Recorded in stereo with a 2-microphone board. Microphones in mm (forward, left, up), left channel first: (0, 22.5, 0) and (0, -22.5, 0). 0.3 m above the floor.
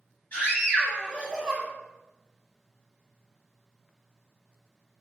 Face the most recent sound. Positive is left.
turn(degrees=10)  # may be behind; listen again after turning